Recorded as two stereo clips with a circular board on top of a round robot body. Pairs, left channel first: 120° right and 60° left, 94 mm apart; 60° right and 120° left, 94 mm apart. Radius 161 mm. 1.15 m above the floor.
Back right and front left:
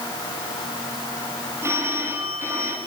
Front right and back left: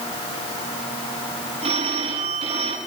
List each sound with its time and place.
1.6 s a phone ringing: 125° left, 7.5 m